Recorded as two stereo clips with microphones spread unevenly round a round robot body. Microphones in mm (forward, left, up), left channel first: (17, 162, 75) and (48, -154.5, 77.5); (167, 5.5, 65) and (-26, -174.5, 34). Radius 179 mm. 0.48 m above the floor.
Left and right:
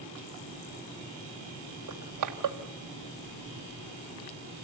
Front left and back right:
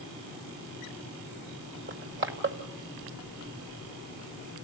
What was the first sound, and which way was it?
Crushing, 105° right.